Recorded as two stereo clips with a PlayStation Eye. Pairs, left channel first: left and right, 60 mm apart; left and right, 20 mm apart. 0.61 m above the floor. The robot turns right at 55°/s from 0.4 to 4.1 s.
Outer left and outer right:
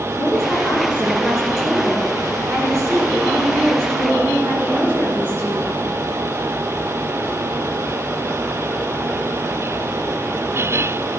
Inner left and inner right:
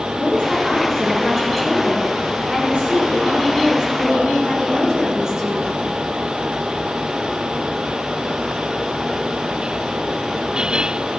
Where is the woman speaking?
125° left, 8 m; by 5.7 s 30° right, 8 m.